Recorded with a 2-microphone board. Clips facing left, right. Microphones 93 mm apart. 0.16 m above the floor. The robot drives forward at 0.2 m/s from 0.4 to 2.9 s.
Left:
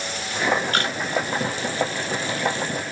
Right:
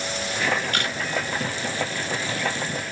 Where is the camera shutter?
35° left (ahead or behind), 1.9 m.